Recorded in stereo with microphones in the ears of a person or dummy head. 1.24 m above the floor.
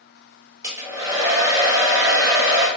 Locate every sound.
0.6 s a hair dryer: 15° right (ahead or behind), 0.8 m